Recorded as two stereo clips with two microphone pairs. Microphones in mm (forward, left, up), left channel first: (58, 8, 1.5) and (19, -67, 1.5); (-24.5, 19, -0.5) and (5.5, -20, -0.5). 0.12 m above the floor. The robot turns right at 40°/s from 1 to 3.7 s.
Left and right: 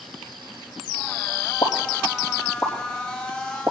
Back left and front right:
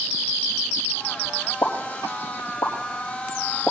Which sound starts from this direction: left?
A pop, at 1.6 s.